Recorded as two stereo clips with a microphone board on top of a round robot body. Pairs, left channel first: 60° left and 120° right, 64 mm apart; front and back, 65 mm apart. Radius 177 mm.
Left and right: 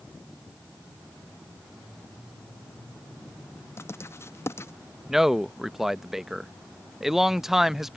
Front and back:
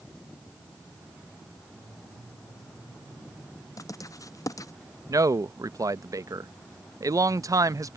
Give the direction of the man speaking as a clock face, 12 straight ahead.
7 o'clock.